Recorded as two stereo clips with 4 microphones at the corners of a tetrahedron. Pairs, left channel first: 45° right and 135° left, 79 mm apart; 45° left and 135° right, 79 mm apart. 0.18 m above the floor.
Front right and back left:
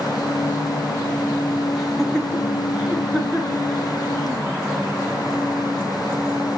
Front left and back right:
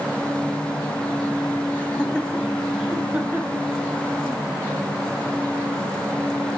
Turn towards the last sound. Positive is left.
turn(degrees=-170)